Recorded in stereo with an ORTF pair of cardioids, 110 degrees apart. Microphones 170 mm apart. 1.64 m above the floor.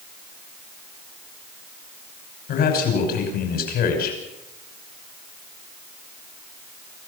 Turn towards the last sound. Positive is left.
turn(degrees=65)